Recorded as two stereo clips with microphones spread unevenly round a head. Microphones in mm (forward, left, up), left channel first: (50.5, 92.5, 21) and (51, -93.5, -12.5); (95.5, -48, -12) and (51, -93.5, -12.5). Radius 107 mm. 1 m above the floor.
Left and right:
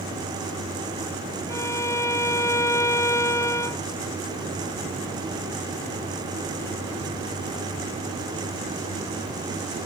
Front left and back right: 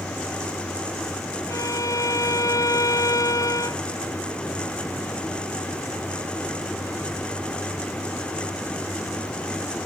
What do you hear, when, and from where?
1.5 s a violin: 15° left